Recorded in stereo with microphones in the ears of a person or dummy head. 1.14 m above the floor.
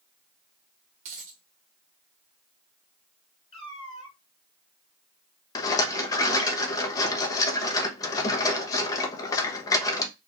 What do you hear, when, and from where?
1.1 s a dropped coin: 40° right (ahead or behind), 1.4 m
3.5 s a cat meowing: 30° left (ahead or behind), 3 m
5.5 s a rattle: 20° left (ahead or behind), 1.0 m